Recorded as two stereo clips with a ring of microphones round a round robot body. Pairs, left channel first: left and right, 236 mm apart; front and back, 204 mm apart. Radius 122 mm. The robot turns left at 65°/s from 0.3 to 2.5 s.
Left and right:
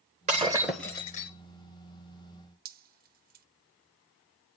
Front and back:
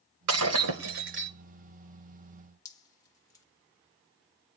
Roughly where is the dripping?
Ahead right.